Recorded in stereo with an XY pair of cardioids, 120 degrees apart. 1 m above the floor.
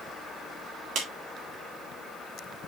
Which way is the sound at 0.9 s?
65° right.